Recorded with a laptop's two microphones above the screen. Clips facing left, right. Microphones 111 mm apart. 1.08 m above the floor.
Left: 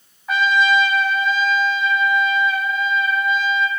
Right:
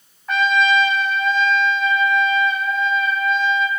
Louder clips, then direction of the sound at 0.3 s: Even; centre (ahead or behind).